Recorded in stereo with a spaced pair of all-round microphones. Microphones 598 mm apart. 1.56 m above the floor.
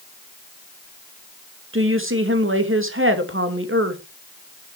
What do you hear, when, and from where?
1.7 s a woman speaking: 20° right (ahead or behind), 2.5 m